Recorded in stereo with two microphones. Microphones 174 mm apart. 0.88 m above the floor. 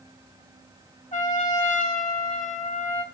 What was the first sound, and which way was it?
A trumpet, 45° left (ahead or behind).